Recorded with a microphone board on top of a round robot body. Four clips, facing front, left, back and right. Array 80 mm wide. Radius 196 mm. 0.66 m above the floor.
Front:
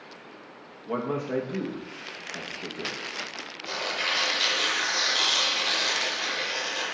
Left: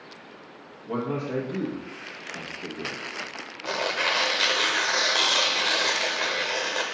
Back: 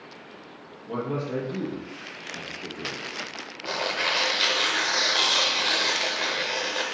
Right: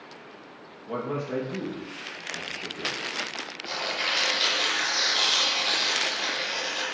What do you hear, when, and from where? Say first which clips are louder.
0.9 s a man speaking: left 2 dB, even; straight ahead, 1.4 m
3.6 s tearing paper: left 5 dB, back 3 dB; 115° left, 0.8 m